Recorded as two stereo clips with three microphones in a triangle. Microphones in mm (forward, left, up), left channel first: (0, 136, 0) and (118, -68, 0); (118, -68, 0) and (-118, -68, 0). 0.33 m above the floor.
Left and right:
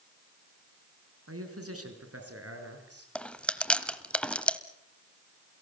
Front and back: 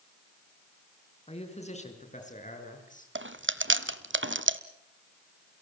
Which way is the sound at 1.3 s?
65° right.